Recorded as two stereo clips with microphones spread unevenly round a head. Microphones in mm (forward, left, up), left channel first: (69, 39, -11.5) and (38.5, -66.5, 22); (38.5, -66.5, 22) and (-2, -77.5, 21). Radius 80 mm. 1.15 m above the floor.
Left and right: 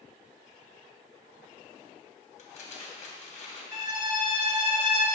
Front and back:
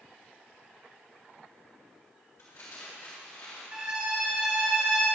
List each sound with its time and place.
2.4 s crumpling: 60° left, 3 m
3.7 s a violin: 120° left, 2 m